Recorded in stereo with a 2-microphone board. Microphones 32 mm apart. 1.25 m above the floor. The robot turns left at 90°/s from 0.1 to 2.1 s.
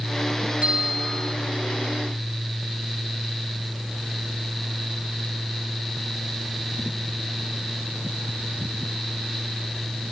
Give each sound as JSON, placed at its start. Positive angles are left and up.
{"t": 0.6, "sound": "a bell", "azimuth_deg": -135, "distance_m": 4.0}